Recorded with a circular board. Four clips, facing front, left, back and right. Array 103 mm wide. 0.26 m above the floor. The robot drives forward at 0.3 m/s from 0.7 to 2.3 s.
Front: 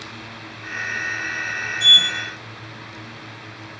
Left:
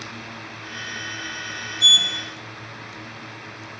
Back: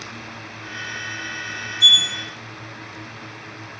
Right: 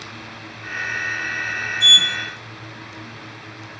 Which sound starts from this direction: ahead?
A sliding door, at 1.8 s.